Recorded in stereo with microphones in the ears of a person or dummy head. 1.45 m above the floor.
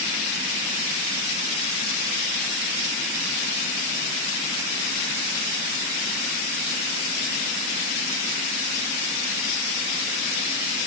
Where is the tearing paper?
I don't hear tearing paper.